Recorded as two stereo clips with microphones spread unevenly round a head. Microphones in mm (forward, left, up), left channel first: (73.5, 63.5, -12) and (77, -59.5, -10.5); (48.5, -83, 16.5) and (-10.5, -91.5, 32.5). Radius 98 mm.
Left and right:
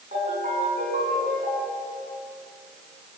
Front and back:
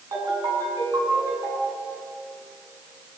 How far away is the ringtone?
About 8.5 m.